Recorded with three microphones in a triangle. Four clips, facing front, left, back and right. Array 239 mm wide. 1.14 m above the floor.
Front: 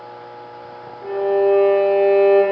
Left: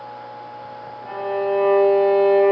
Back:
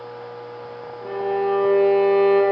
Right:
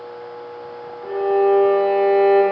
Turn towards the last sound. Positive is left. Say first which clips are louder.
# right 7 dB, front 6 dB
turn(degrees=180)